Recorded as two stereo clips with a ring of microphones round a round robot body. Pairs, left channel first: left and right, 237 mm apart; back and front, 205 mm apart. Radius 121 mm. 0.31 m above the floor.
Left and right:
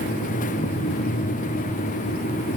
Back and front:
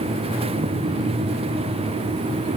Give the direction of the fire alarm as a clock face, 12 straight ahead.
I don't hear a fire alarm.